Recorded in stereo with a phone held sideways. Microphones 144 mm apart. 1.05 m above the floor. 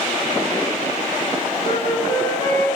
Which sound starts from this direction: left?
A flute, at 1.6 s.